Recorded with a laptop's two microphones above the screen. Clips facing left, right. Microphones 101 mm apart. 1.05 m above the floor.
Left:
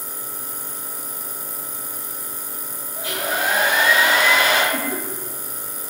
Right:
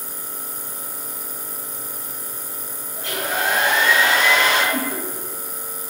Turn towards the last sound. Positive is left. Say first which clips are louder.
# even
turn(degrees=-20)  # may be behind; listen again after turning